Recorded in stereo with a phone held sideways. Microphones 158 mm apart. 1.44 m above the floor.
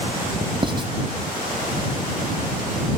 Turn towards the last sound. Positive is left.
turn(degrees=-35)  # may be behind; listen again after turning